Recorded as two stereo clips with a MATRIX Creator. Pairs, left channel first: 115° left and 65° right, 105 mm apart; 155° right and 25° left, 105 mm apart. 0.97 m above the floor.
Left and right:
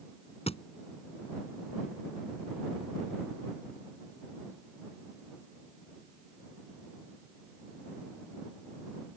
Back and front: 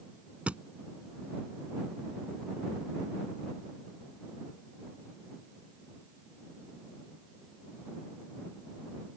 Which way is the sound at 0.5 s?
100° left.